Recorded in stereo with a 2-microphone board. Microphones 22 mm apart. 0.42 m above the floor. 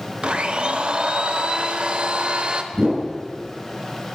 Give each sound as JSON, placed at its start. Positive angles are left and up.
{"t": 0.2, "sound": "a blender", "side_deg": -45, "distance_m": 0.7}
{"t": 2.7, "sound": "a whoosh", "side_deg": -35, "distance_m": 2.0}